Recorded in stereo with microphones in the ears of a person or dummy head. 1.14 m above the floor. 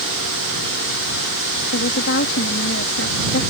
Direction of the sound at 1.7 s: 65° left (ahead or behind).